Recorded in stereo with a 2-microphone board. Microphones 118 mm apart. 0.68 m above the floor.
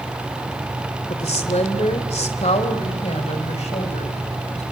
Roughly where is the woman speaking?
Left.